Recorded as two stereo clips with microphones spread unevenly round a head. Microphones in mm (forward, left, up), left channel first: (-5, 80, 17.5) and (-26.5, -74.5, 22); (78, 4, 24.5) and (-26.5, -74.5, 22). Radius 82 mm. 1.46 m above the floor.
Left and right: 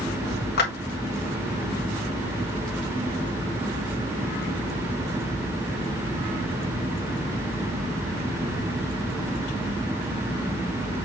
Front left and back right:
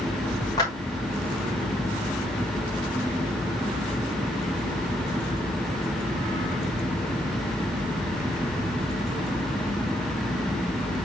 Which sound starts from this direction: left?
A clap, at 0.6 s.